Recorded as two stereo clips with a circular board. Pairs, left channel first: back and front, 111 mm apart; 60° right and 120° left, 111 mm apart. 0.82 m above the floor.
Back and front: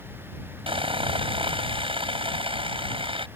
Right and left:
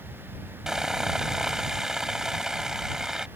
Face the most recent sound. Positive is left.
turn(degrees=35)